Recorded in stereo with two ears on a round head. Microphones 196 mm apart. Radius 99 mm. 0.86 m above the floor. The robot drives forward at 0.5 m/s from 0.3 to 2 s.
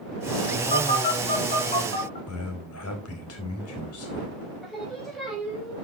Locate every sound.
0.7 s a phone buzzing: 30° left (ahead or behind), 3 m; by 2.2 s 25° left (ahead or behind), 3.5 m
2.3 s a man speaking: 70° left (ahead or behind), 4 m
4.6 s singing: centre (ahead or behind), 4.5 m